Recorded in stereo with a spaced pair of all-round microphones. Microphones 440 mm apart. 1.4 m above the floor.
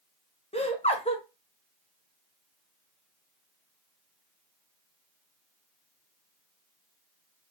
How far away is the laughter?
About 0.8 m.